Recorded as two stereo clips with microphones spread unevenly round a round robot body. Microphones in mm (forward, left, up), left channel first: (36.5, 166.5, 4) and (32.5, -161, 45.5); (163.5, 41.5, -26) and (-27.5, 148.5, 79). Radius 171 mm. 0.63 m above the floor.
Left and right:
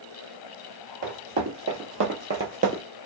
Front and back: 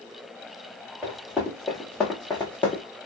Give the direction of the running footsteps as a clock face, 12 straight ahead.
5 o'clock.